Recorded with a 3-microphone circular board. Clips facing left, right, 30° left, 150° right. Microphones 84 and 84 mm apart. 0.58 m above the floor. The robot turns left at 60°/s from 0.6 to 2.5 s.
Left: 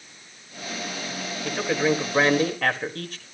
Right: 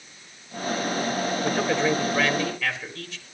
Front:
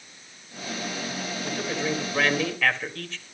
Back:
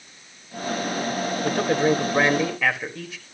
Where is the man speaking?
165° right, 2.0 m; by 3.2 s 130° left, 2.0 m.